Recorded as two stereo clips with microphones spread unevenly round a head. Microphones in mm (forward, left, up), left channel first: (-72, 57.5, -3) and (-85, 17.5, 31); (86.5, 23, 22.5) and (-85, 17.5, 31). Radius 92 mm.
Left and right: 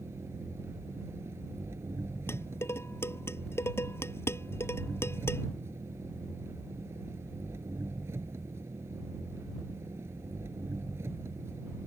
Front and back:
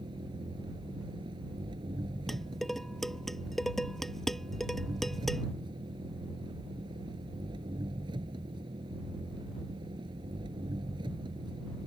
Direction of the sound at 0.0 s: 110° right.